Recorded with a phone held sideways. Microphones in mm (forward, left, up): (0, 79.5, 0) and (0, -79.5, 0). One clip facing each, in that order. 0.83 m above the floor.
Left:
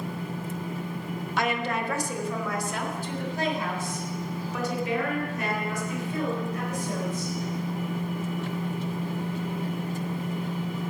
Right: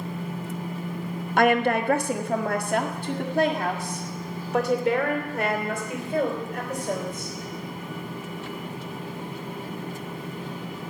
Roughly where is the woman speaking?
Right.